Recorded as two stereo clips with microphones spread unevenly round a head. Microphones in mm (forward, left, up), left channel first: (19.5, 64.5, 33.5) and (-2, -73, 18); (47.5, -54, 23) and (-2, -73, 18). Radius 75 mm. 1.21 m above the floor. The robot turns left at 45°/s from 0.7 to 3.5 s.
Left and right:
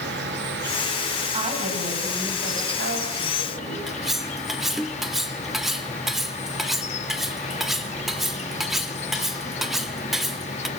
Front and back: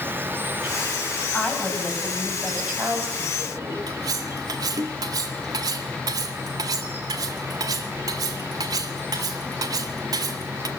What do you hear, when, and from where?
0.0 s an insect: 105° right, 1.8 m; by 10.8 s 125° left, 1.8 m
1.3 s a woman speaking: 45° right, 7.5 m; by 3.8 s 140° right, 7.5 m
3.9 s cutlery clinking: 170° left, 1.3 m